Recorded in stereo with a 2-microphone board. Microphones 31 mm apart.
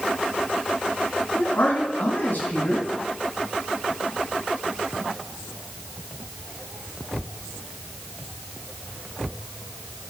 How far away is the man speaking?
About 3 m.